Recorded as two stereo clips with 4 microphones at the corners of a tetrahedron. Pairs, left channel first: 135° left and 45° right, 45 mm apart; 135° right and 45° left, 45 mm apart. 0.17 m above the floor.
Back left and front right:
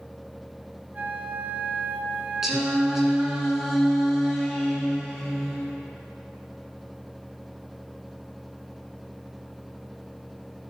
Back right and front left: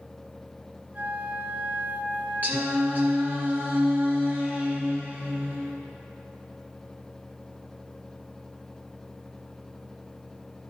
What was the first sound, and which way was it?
A flute, 5° left.